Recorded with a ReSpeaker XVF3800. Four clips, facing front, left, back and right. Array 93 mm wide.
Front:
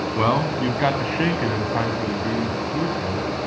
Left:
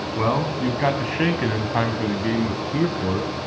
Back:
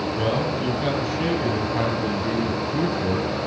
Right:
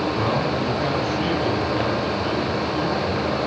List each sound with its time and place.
0.1 s a man speaking: 15° left, 2.5 m; by 3.5 s 110° left, 3.5 m